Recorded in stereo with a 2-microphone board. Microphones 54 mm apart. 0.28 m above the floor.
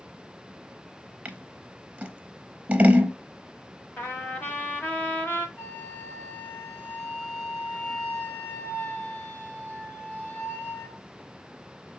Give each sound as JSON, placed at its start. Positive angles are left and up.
{"t": 1.2, "sound": "scissors", "side_deg": -25, "distance_m": 0.6}
{"t": 4.0, "sound": "a trumpet", "side_deg": 45, "distance_m": 0.8}
{"t": 5.6, "sound": "a flute", "side_deg": 40, "distance_m": 3.0}